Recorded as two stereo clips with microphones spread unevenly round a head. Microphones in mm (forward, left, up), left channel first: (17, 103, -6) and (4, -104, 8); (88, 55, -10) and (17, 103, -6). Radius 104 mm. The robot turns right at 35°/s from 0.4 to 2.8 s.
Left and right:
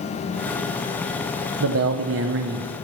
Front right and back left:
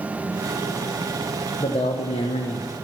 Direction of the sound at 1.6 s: 85° right.